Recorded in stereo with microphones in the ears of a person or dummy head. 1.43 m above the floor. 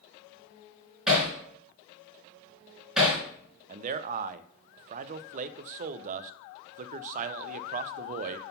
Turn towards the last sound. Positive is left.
turn(degrees=-45)  # may be behind; listen again after turning